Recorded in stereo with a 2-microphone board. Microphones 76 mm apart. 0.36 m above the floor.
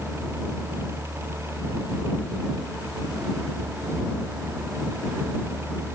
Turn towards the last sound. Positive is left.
No sound to turn to.